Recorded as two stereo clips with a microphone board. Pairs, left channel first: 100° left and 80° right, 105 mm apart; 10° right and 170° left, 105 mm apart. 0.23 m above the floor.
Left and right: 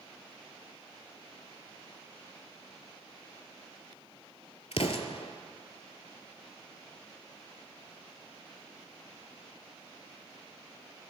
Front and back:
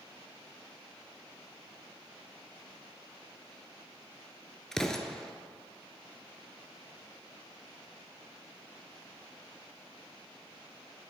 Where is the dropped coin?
I don't hear a dropped coin.